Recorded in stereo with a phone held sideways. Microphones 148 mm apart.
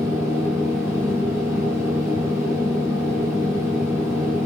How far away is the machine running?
About 2.5 m.